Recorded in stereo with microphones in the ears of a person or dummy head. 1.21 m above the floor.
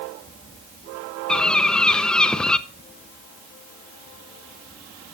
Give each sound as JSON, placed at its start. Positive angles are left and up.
{"t": 1.3, "sound": "a bird", "side_deg": 0, "distance_m": 0.8}